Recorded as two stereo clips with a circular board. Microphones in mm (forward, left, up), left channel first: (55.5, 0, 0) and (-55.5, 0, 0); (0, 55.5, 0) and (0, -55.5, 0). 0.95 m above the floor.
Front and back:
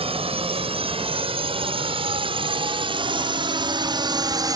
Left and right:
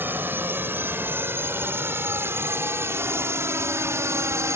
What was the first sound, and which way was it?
A drone, 160° right.